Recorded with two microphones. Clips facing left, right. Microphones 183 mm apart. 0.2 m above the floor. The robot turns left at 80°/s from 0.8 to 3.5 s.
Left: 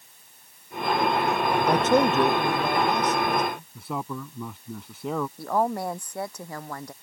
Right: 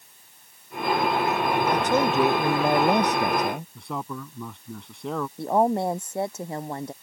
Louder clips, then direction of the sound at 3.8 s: Left 1 dB; 5° left (ahead or behind).